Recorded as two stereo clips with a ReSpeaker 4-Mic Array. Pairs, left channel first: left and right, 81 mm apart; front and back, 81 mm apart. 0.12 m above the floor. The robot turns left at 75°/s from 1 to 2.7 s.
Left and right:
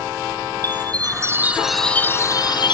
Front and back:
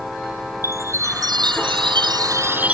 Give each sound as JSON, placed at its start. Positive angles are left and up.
{"t": 0.6, "sound": "a chime", "azimuth_deg": -125, "distance_m": 0.9}